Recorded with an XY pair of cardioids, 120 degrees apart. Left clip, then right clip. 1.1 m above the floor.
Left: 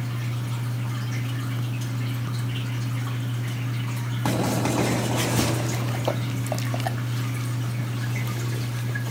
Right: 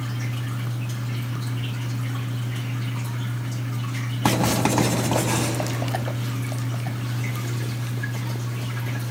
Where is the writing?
35° right, 9.5 m.